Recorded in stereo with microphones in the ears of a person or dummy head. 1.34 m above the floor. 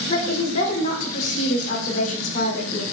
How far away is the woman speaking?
About 3.5 m.